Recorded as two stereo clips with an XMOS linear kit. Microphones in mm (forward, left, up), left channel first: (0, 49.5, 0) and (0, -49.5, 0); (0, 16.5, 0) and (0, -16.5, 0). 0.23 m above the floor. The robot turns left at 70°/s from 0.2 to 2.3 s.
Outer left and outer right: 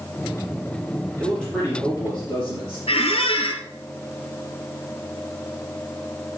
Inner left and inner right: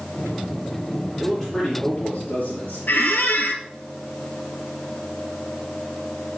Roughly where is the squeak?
Left.